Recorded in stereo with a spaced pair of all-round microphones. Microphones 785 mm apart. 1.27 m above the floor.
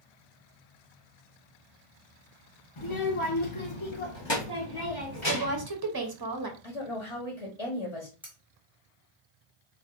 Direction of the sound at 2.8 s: 40° left (ahead or behind).